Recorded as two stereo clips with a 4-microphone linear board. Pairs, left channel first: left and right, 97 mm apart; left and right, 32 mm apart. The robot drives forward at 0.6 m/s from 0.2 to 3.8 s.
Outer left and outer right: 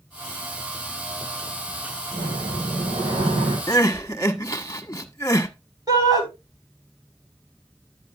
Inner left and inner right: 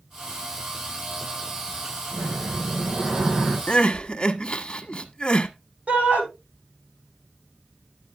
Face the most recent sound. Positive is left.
turn(degrees=-40)  # may be behind; listen again after turning